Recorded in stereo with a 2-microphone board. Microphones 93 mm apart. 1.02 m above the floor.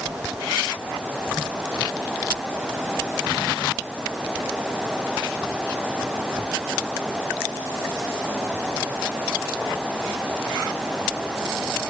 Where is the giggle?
I don't hear a giggle.